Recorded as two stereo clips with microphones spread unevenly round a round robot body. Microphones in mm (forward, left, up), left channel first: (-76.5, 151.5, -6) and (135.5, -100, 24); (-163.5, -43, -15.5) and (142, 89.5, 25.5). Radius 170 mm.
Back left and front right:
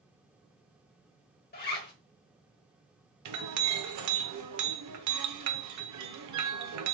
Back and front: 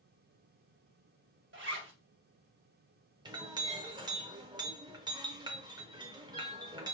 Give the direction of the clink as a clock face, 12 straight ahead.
2 o'clock.